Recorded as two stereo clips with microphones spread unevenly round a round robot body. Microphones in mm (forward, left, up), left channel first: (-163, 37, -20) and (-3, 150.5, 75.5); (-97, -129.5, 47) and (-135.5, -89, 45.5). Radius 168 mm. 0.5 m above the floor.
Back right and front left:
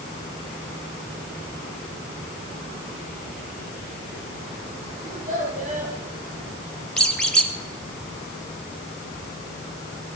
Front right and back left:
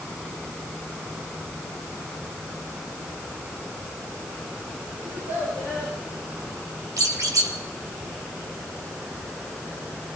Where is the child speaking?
85° left, 9.5 m.